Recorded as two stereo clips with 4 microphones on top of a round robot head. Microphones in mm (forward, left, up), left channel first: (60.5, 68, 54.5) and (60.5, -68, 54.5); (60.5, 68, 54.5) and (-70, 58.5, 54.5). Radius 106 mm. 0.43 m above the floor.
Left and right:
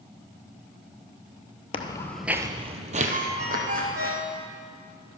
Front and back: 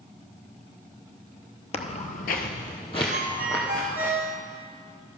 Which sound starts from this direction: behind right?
A ringtone, at 3.1 s.